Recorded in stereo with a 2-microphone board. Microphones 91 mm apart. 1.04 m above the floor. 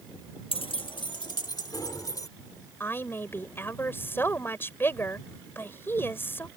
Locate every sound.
0.5 s keys jangling: 85° left; by 2.3 s 40° left (ahead or behind)
2.8 s a woman speaking: 25° left (ahead or behind)